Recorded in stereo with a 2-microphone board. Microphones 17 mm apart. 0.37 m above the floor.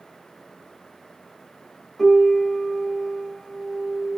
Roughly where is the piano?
Centre.